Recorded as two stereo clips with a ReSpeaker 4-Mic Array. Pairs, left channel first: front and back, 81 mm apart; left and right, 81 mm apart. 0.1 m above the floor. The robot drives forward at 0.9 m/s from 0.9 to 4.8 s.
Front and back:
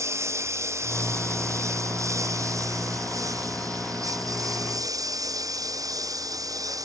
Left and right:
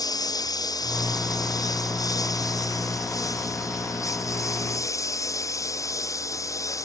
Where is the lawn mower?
125° left; by 6.8 s 135° left.